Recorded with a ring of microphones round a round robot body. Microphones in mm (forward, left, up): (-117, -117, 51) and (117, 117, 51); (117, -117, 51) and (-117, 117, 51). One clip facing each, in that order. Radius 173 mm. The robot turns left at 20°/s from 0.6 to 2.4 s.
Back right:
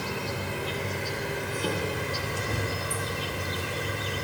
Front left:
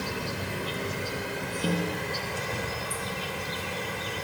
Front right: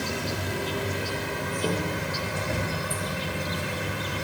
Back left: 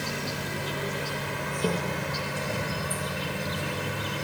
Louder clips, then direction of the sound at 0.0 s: Back right 1 dB, front right 3 dB; 25° right.